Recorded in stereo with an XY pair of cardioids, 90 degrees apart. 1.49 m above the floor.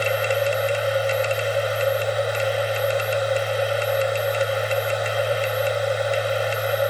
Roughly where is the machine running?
Ahead.